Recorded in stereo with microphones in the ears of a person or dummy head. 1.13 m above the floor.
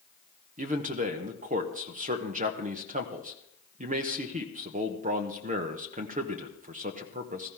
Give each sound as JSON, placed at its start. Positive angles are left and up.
{"t": 0.6, "sound": "a man speaking", "side_deg": -40, "distance_m": 1.0}